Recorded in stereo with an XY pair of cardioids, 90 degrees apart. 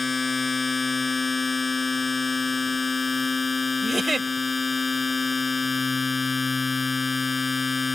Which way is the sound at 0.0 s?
30° left.